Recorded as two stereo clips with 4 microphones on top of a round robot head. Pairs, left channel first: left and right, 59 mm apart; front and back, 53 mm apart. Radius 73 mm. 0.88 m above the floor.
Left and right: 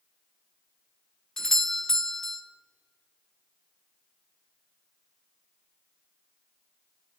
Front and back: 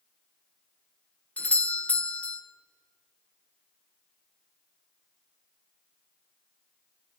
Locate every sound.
1.4 s a doorbell: 15° left, 0.9 m